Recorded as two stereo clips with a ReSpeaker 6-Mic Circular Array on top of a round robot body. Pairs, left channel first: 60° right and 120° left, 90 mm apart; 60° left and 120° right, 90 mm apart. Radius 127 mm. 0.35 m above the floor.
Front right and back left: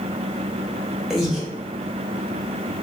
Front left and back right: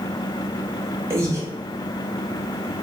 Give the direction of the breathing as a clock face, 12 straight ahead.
5 o'clock.